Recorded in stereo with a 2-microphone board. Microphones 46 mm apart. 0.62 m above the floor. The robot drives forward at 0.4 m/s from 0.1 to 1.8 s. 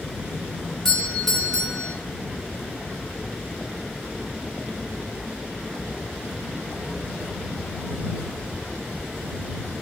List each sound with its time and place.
0.8 s a doorbell: 15° left (ahead or behind), 2.5 m; by 1.9 s 10° left (ahead or behind), 2.5 m